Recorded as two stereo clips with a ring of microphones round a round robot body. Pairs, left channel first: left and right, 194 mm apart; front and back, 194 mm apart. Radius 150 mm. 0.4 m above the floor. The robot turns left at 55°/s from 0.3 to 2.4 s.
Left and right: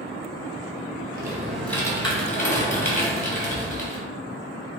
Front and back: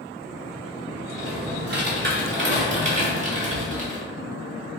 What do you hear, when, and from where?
1.1 s typing on a keyboard: 155° right, 1.8 m; by 4.0 s 135° left, 1.8 m